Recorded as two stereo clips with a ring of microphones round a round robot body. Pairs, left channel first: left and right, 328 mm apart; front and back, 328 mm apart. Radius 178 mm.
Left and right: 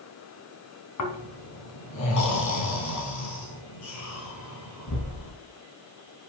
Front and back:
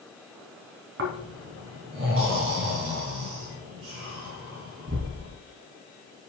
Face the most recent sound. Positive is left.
turn(degrees=125)